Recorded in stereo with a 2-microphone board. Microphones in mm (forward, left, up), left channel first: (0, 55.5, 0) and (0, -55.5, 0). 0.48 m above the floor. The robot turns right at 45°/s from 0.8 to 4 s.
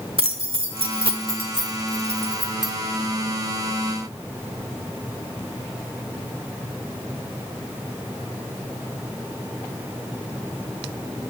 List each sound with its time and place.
0.2 s keys jangling: 55° right (ahead or behind), 0.8 m; by 2.7 s centre (ahead or behind), 0.8 m